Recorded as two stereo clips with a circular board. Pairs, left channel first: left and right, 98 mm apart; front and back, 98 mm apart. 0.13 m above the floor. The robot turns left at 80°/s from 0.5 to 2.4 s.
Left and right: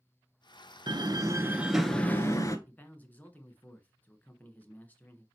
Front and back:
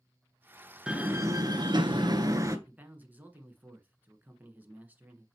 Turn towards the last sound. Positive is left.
turn(degrees=135)